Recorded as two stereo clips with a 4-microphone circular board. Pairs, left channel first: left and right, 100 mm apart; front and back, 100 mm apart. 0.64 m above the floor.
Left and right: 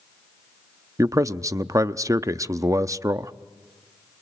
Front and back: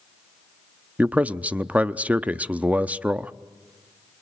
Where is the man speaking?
115° right, 0.6 m.